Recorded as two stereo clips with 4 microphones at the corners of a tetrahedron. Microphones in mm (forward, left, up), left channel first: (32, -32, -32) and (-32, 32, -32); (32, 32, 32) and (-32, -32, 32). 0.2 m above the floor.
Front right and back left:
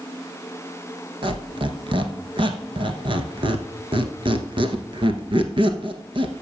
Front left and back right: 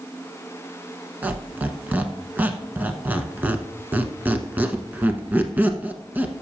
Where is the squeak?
155° left, 0.9 m.